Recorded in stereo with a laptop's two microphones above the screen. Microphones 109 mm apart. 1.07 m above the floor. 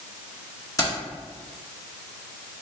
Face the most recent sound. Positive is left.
turn(degrees=30)  # may be behind; listen again after turning